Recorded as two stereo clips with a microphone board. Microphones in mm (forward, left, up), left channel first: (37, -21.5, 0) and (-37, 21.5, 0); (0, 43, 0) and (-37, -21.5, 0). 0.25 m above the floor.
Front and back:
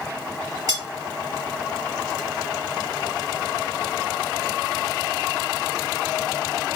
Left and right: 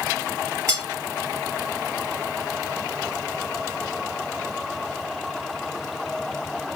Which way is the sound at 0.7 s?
170° right.